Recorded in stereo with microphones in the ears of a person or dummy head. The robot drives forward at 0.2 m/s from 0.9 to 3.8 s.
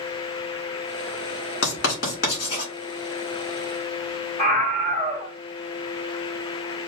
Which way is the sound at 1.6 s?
55° left (ahead or behind).